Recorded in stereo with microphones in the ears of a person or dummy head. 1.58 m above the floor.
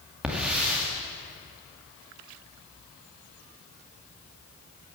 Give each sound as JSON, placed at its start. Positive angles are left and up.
{"t": 0.2, "sound": "a hiss", "side_deg": -5, "distance_m": 2.0}